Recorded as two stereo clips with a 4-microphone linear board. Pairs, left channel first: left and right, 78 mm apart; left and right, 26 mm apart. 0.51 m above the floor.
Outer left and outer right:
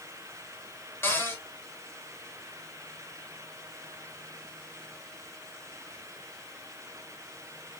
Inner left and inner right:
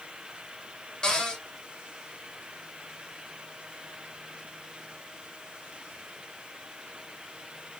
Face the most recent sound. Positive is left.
turn(degrees=30)  # may be behind; listen again after turning